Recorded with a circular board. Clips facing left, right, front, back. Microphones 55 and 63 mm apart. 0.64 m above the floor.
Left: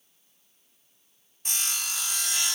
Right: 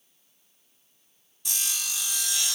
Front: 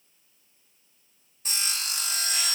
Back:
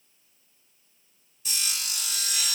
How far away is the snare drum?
No snare drum in this recording.